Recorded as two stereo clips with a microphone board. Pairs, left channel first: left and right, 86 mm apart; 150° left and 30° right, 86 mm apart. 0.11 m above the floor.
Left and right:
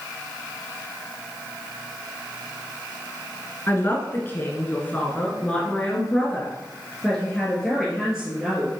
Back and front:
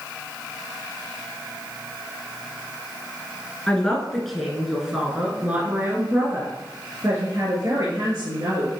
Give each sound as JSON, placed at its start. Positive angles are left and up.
{"t": 3.7, "sound": "a man speaking", "azimuth_deg": 90, "distance_m": 1.7}